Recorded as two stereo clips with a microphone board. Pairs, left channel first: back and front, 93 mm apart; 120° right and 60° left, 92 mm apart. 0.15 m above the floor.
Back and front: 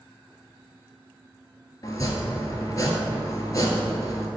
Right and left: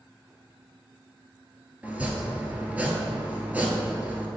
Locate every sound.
1.8 s chopping: 130° left, 1.0 m